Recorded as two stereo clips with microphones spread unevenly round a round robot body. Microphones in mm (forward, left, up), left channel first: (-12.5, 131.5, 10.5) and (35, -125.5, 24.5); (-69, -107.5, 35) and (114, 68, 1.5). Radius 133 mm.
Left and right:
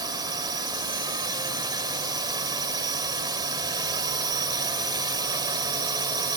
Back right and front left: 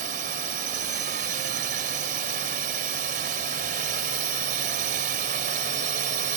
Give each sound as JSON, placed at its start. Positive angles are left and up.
{"t": 0.0, "sound": "a drone", "azimuth_deg": -5}